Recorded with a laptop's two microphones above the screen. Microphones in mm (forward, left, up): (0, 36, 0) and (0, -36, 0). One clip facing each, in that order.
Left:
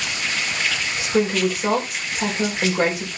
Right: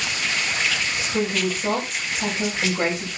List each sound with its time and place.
1.0 s a woman speaking: 65° left (ahead or behind), 4 m